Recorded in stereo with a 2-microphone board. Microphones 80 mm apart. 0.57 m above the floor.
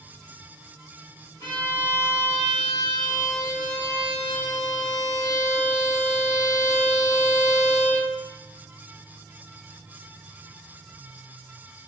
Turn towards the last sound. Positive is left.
turn(degrees=35)  # may be behind; listen again after turning